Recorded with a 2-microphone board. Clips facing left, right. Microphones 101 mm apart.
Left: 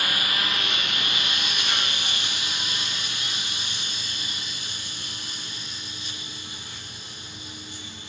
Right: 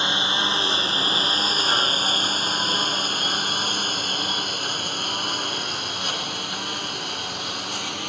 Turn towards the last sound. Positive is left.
turn(degrees=-70)  # may be behind; listen again after turning